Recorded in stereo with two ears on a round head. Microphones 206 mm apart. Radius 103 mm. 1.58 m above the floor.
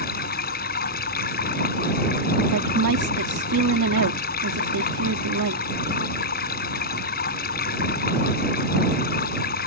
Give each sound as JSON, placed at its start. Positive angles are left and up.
{"t": 0.0, "sound": "running water", "side_deg": 45}
{"t": 2.5, "sound": "a woman speaking", "side_deg": -80}